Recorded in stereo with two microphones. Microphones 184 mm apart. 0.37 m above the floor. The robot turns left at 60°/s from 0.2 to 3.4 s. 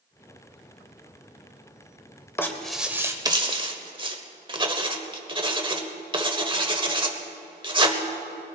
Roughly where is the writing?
Centre.